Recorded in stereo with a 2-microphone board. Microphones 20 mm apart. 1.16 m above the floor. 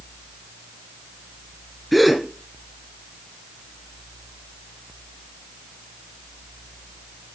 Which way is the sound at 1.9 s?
5° right (ahead or behind).